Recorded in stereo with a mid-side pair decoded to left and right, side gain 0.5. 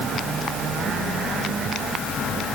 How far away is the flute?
No flute in this recording.